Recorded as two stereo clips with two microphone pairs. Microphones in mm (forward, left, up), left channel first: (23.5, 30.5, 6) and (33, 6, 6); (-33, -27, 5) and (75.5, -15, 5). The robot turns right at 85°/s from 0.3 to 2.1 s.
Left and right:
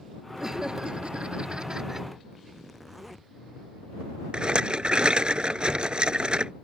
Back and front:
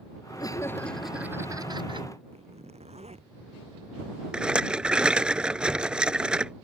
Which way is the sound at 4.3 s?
70° right.